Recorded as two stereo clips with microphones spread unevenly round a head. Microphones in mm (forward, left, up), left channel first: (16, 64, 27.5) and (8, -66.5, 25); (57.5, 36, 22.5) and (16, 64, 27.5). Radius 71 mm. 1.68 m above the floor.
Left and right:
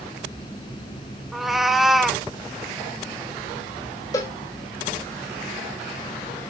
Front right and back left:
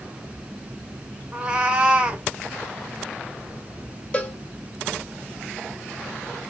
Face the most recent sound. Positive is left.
turn(degrees=30)